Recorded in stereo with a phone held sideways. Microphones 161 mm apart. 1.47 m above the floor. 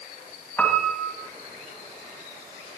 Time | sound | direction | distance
0.6 | a piano | 10° left (ahead or behind) | 2.5 m